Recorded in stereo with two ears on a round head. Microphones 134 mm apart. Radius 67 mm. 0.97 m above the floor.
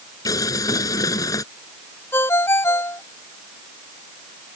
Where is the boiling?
25° left (ahead or behind).